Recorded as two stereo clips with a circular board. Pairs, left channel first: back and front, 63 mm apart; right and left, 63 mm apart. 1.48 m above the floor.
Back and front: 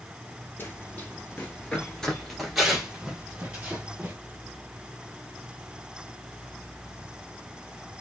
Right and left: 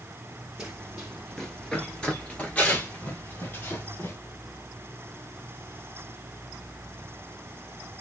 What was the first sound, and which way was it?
Running footsteps, 165° left.